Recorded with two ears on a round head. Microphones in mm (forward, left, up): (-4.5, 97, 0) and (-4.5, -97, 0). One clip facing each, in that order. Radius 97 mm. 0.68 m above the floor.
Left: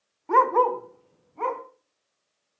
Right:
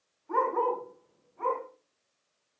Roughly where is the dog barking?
Left.